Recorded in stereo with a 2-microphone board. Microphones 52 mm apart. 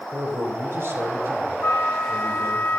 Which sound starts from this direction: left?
A flute, at 1.6 s.